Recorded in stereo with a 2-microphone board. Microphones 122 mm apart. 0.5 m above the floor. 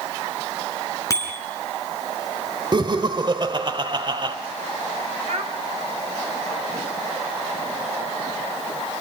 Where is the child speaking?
65° right (ahead or behind), 2 m.